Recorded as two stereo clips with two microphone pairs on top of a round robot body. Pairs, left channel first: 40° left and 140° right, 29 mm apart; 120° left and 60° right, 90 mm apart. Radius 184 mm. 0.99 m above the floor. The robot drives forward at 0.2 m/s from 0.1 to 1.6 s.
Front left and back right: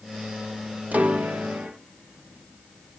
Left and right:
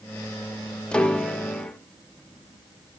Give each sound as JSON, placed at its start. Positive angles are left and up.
{"t": 0.9, "sound": "a piano", "azimuth_deg": -160, "distance_m": 1.0}